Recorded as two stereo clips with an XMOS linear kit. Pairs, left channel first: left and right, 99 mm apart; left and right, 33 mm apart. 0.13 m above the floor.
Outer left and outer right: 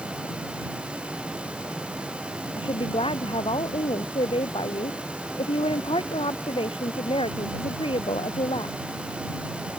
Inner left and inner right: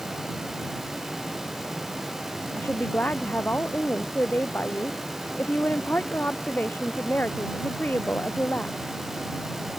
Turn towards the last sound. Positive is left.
turn(degrees=65)  # may be behind; listen again after turning